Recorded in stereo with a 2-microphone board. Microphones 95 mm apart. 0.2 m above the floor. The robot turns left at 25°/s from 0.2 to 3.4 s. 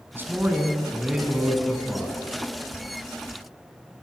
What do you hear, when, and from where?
0.1 s a man speaking: 145° right, 2 m; by 2.2 s 165° left, 2 m